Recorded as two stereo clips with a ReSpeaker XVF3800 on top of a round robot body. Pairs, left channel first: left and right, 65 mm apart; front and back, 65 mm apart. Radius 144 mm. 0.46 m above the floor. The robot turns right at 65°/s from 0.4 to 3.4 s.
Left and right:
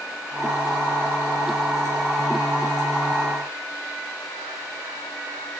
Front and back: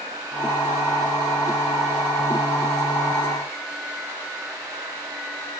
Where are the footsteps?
I don't hear footsteps.